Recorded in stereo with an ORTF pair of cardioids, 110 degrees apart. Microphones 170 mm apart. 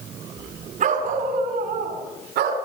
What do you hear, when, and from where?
0.8 s a dog barking: 50° right, 5 m; by 2.6 s 75° right, 5.5 m